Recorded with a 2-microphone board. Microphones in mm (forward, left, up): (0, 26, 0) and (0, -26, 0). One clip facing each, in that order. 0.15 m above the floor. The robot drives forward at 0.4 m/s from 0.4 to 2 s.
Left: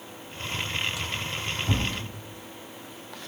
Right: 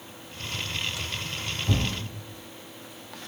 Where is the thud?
5° left (ahead or behind), 1.3 m.